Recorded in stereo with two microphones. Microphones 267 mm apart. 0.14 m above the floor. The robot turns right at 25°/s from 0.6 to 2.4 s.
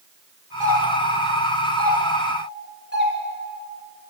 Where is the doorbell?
10° right (ahead or behind), 2.5 m; by 3.1 s 45° right (ahead or behind), 2.5 m.